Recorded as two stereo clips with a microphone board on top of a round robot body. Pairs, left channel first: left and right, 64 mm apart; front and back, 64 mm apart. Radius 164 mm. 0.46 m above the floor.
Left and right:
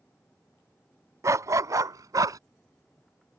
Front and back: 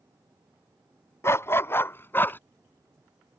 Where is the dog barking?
50° right; by 2.4 s 60° right.